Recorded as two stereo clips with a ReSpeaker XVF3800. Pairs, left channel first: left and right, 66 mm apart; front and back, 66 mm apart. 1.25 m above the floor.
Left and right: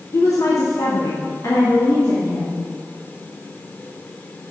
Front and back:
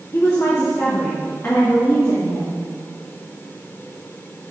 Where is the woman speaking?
50° left, 1.0 m; by 2.6 s 55° left, 2.5 m.